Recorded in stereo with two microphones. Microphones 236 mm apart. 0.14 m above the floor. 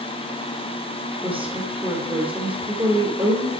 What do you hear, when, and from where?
1.2 s a woman speaking: 25° right (ahead or behind), 2.5 m